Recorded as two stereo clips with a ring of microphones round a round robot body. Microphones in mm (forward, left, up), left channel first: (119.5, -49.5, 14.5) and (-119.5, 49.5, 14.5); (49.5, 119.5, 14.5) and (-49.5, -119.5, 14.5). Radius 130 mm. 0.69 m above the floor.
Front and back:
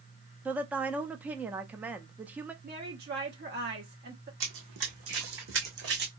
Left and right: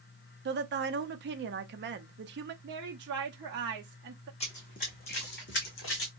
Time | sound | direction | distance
0.5 | a woman speaking | 120° right | 0.6 m
2.6 | a woman speaking | 155° right | 0.9 m
4.4 | running footsteps | 135° left | 2 m